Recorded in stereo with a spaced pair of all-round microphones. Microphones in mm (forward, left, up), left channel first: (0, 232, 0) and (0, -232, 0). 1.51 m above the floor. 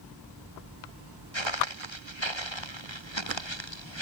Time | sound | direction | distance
1.3 | footsteps | 75° left (ahead or behind) | ?